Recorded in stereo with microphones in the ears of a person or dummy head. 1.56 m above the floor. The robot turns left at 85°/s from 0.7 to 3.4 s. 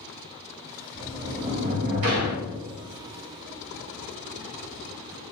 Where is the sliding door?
15° left, 0.8 m; by 2.6 s 125° right, 0.8 m.